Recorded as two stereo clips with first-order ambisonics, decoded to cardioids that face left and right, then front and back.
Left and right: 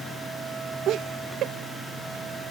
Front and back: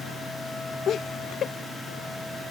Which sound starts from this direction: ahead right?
Laughter, at 0.9 s.